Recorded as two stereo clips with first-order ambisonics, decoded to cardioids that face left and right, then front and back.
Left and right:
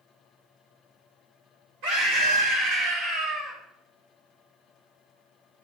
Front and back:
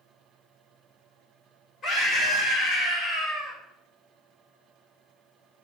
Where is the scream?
70° right, 4 m.